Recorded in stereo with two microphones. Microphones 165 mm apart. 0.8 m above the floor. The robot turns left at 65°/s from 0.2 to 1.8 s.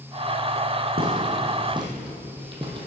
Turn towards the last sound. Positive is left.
turn(degrees=-30)  # may be behind; listen again after turning